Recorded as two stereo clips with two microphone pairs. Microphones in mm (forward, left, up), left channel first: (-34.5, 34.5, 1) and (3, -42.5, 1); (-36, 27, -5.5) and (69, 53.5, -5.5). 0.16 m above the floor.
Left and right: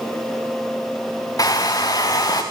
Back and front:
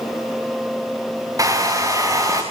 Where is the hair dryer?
70° left, 4.5 m.